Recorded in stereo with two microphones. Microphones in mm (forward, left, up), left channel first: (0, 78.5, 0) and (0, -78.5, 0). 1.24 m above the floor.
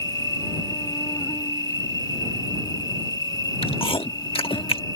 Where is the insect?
25° left (ahead or behind).